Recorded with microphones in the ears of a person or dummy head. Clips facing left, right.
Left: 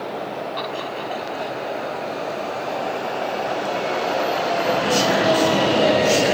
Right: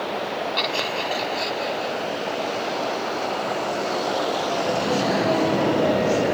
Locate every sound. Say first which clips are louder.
0.6 s laughter: right 1 dB; 35° right (ahead or behind); by 1.9 s 30° right (ahead or behind)